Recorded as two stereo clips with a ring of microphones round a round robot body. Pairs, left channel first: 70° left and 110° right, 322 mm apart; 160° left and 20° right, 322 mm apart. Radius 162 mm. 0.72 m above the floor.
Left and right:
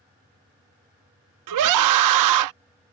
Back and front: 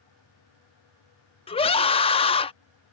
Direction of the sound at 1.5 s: 130° right.